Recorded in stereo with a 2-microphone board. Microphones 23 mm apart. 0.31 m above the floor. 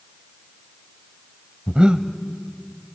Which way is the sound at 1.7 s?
45° right (ahead or behind).